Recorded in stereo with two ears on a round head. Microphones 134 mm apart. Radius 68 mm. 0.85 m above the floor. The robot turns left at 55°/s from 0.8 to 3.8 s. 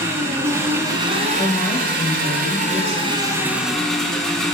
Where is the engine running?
20° right, 2.0 m; by 4.5 s 175° left, 2.0 m.